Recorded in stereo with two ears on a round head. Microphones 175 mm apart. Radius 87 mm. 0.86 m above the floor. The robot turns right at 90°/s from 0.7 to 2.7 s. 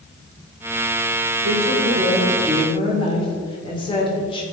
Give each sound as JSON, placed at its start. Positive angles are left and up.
{"t": 1.4, "sound": "a woman speaking", "azimuth_deg": -85, "distance_m": 2.5}